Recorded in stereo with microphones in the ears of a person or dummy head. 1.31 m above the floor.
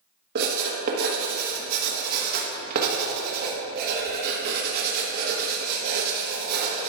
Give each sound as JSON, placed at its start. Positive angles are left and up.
{"t": 0.3, "sound": "writing", "side_deg": -55, "distance_m": 1.4}